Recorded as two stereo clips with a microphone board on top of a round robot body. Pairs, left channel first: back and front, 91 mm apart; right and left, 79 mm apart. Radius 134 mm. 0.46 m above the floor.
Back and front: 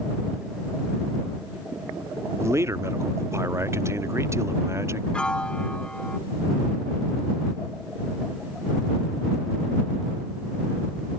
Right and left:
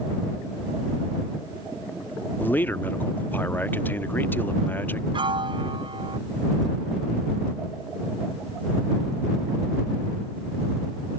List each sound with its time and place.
2.4 s a man speaking: 40° right
5.1 s a piano: 100° left